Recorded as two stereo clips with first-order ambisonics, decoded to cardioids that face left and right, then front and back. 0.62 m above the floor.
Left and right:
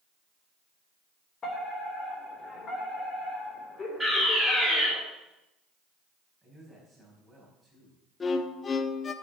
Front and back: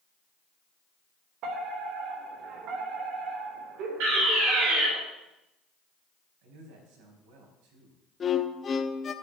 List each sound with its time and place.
1.4 s a fire alarm: 150° left, 3.5 m
4.0 s a fire alarm: 175° left, 6 m
6.4 s a man speaking: straight behind, 5 m
8.2 s a violin: 40° left, 0.8 m